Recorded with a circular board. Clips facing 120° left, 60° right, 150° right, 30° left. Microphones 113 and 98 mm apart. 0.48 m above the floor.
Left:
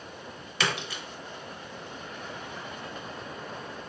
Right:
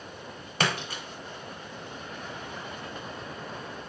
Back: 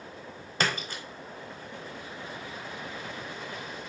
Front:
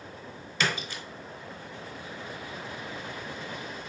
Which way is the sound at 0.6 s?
105° right.